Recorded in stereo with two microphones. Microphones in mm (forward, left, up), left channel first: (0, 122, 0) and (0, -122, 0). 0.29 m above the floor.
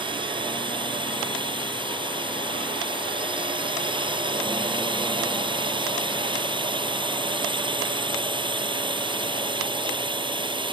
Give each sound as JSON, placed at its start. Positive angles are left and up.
{"t": 0.0, "sound": "a drone", "side_deg": -20}